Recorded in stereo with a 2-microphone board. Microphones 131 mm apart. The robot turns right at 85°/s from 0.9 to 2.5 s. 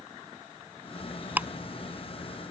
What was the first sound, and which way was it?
Ticking, 15° right (ahead or behind).